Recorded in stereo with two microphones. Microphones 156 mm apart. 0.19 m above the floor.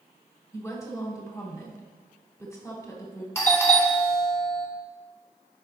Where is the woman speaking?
20° left (ahead or behind), 1.4 m.